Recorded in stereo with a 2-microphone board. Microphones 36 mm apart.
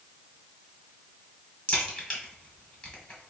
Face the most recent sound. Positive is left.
turn(degrees=25)  # may be behind; listen again after turning